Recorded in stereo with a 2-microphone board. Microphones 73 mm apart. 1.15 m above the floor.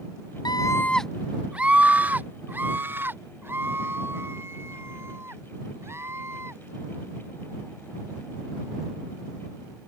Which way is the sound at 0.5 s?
75° left (ahead or behind).